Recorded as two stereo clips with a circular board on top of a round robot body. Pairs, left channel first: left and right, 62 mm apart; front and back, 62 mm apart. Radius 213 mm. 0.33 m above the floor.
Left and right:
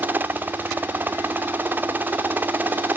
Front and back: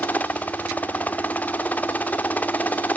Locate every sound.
0.0 s a helicopter: 50° right